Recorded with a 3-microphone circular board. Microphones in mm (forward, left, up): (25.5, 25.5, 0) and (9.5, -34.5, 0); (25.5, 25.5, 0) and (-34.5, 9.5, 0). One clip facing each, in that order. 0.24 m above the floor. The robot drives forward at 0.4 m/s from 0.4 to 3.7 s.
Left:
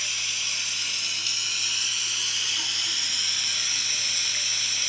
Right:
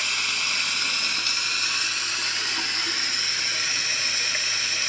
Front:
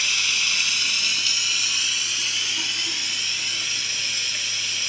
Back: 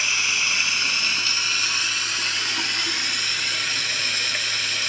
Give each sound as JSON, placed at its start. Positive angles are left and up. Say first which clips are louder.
{"t": 0.0, "sound": "running water", "louder": "right 6 dB, back 2 dB", "azimuth_deg": -110, "distance_m": 1.2}